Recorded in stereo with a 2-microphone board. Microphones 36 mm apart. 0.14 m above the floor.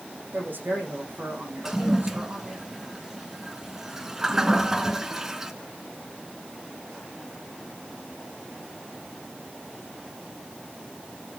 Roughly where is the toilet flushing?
Centre.